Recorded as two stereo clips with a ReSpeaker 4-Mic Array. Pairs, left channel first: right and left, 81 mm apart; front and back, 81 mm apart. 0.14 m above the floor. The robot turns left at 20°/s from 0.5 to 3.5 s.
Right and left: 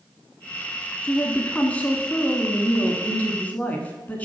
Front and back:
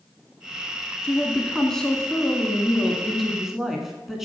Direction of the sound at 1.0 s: 55° right.